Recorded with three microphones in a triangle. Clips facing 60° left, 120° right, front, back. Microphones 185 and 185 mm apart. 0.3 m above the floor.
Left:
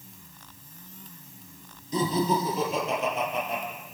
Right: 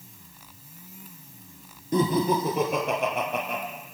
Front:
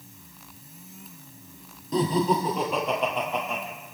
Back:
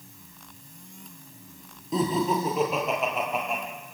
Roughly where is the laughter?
Right.